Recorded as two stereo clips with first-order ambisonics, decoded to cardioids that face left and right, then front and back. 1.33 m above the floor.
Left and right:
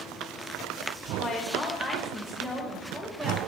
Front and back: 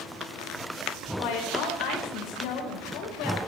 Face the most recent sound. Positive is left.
turn(degrees=-20)